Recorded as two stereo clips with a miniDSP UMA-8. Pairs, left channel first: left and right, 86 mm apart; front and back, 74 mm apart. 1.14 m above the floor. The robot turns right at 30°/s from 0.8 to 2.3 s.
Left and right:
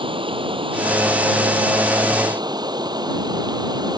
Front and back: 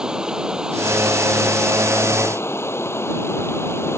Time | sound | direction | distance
0.0 | running water | 100° right | ?